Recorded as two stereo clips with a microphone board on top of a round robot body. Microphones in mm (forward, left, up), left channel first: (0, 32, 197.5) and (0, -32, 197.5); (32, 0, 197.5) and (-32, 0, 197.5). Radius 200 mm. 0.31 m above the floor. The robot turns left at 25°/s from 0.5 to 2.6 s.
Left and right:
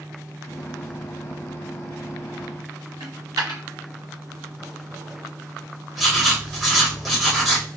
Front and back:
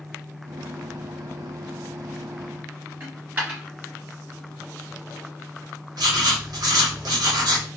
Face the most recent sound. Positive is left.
turn(degrees=180)